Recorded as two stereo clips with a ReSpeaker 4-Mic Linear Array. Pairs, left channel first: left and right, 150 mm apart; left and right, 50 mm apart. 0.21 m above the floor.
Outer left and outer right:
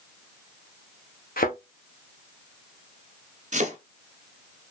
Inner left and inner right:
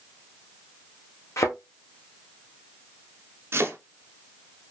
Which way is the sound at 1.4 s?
80° left.